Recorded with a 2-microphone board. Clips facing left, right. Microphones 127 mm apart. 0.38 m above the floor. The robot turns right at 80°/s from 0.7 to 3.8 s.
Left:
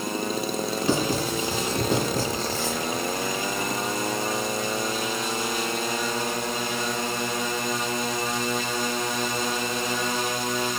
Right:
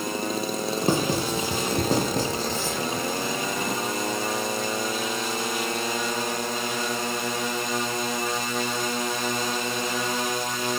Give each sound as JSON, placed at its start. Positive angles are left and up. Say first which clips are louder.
{"t": 0.8, "sound": "writing", "louder": "right 1 dB", "side_deg": -50, "distance_m": 2.0}